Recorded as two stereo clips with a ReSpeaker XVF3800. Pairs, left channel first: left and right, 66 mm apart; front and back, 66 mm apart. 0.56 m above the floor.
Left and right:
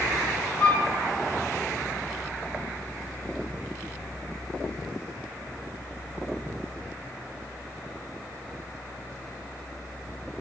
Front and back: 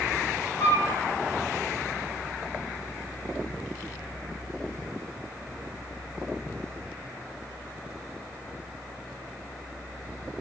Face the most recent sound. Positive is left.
turn(degrees=65)